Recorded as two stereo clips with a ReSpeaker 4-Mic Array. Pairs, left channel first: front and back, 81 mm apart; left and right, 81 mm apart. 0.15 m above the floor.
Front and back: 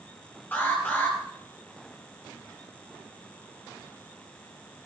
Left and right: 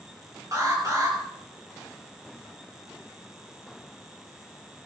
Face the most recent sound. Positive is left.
turn(degrees=-60)